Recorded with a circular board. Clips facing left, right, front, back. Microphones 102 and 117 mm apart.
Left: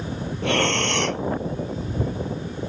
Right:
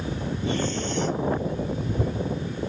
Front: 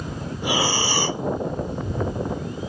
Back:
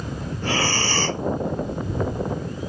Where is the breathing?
80° left.